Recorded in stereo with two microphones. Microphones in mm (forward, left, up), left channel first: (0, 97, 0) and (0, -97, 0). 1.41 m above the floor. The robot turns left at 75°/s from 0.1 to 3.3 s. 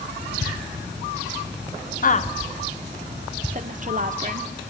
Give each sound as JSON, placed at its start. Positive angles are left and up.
{"t": 2.0, "sound": "a woman speaking", "side_deg": 45, "distance_m": 0.8}